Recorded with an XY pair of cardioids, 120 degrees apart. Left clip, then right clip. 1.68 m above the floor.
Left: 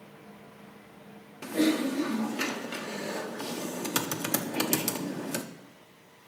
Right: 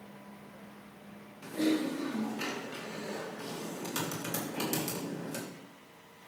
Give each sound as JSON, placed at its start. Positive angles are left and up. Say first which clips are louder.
{"t": 1.4, "sound": "typing on a keyboard", "louder": "left 4 dB", "azimuth_deg": 55, "distance_m": 1.1}